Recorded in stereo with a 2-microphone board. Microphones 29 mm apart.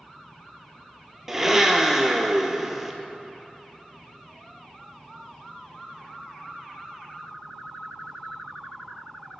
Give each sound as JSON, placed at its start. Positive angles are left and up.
{"t": 1.3, "sound": "a blender", "side_deg": -15, "distance_m": 0.6}